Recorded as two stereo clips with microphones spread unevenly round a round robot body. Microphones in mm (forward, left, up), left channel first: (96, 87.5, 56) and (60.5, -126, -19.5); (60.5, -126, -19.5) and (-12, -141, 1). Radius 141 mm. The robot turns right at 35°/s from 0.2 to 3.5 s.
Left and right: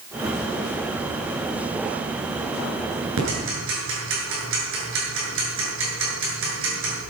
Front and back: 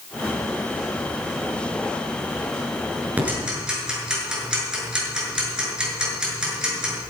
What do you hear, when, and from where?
3.2 s ticking: 100° right, 7 m; by 7.0 s 85° right, 7 m